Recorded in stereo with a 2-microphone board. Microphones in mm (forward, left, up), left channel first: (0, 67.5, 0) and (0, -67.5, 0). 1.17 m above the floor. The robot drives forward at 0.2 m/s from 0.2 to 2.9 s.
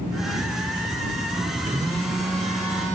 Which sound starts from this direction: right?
A phone buzzing, at 1.7 s.